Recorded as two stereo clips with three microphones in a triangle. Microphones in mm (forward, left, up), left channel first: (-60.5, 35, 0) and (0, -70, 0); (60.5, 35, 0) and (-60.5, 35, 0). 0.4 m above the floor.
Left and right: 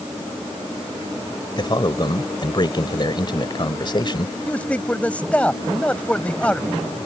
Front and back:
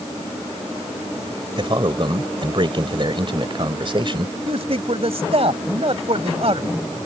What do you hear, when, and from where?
1.6 s a man speaking: 155° left
4.5 s a man speaking: 165° right